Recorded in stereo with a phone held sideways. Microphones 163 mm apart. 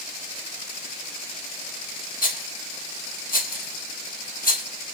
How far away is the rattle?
About 0.9 m.